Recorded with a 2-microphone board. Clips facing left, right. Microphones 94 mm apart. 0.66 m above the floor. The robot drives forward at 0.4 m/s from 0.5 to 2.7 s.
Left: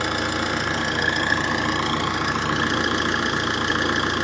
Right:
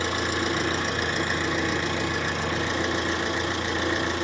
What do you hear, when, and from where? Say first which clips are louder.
0.0 s an engine running: left 2 dB; 75° left (ahead or behind), 3.5 m; by 4.2 s 85° left, 3.5 m